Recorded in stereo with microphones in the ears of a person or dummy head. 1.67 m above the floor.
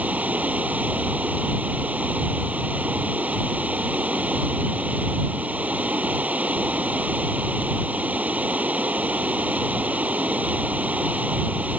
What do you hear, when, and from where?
0.0 s running water: 10° right (ahead or behind)